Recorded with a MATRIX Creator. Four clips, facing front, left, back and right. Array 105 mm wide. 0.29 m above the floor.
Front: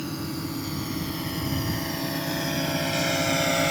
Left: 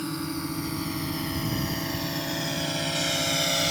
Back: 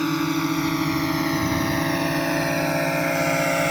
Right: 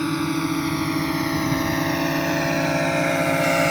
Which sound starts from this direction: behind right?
A drone, at 0.0 s.